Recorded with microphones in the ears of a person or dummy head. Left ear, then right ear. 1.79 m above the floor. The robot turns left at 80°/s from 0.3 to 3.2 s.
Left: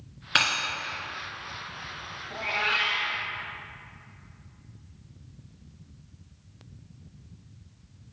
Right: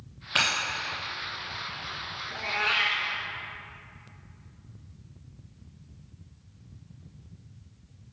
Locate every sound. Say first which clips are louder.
0.3 s breaking glass: left 1 dB; 25° left (ahead or behind), 1.9 m; by 0.5 s 20° left (ahead or behind), 1.9 m
2.3 s a cat meowing: even; 10° left, 1.1 m; by 3.2 s 60° right, 1.1 m